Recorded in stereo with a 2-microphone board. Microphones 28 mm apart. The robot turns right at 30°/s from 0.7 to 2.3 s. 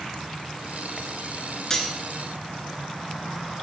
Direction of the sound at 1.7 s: 20° left (ahead or behind).